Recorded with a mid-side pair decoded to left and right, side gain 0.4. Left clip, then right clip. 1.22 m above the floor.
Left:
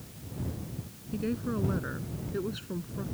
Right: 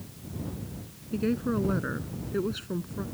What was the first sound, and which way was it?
A woman speaking, 30° right.